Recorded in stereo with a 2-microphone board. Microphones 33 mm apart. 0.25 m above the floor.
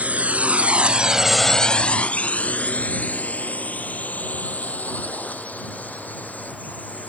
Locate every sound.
0.0 s a drone: 45° right (ahead or behind); by 7.1 s 50° left (ahead or behind)